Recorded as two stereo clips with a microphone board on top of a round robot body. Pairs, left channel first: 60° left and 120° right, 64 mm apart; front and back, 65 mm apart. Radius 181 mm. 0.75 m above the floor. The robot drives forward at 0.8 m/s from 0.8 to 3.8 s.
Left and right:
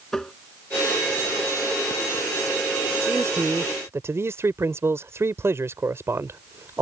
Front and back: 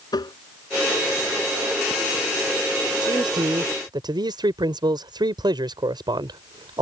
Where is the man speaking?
170° right.